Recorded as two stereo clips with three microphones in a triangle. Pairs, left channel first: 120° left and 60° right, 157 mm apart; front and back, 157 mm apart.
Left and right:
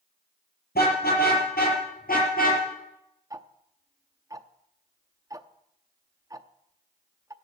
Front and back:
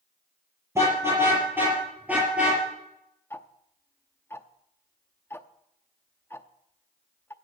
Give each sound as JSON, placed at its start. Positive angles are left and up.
{"t": 0.8, "sound": "a car horn", "azimuth_deg": 105, "distance_m": 6.5}
{"t": 3.3, "sound": "ticking", "azimuth_deg": -50, "distance_m": 0.6}